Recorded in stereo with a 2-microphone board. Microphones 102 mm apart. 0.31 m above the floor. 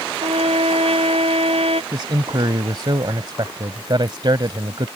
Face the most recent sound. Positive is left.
turn(degrees=-50)  # may be behind; listen again after turning